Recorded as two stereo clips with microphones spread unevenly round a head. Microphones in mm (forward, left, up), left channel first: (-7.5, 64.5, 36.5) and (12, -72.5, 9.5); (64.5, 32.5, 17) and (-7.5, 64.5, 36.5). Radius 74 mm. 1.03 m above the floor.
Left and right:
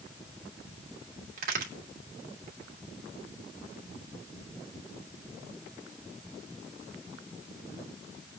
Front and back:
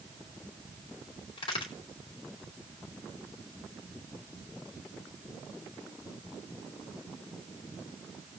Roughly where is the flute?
I don't hear a flute.